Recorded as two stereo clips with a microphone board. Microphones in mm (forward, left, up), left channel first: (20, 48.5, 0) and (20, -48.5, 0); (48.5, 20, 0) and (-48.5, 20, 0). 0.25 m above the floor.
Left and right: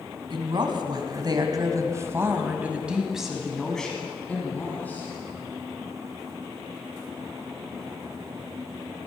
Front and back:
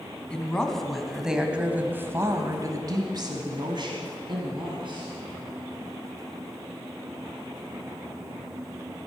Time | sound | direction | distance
0.3 | a woman speaking | 80° right | 1.6 m